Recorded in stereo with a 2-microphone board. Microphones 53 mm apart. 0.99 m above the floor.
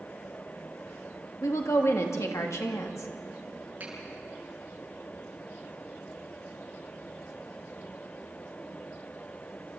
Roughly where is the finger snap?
Right.